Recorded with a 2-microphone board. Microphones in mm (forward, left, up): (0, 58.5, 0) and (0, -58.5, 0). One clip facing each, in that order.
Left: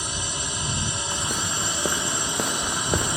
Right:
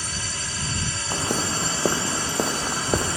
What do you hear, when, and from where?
0.0 s a drone: 20° left (ahead or behind)
1.1 s footsteps: 35° right (ahead or behind); by 3.2 s 10° right (ahead or behind)